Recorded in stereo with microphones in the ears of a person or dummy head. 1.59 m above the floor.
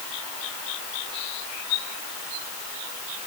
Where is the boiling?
No boiling in this recording.